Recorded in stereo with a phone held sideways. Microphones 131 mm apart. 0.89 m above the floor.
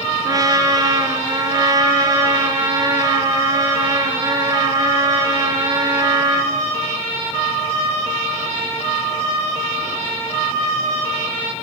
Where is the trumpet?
30° right (ahead or behind), 3.5 m.